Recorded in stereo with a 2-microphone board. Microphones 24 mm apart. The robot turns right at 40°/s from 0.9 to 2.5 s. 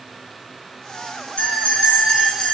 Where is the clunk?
No clunk in this recording.